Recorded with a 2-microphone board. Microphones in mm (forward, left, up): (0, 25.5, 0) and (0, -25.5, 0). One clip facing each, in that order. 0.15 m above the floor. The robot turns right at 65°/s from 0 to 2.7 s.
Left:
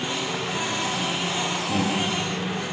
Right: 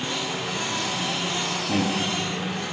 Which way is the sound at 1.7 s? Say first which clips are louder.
Right 1 dB; 25° right (ahead or behind).